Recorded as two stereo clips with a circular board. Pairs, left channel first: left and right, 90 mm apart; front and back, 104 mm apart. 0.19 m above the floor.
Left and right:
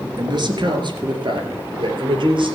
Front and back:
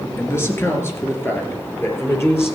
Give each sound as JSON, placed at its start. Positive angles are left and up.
{"t": 0.2, "sound": "a man speaking", "azimuth_deg": -60, "distance_m": 2.5}